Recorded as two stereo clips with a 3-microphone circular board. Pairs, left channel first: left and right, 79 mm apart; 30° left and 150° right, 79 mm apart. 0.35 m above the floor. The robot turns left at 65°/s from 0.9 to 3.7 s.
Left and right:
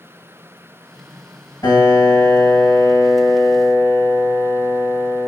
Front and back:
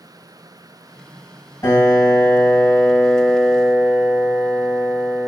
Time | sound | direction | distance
1.6 | a piano | 70° left | 1.9 m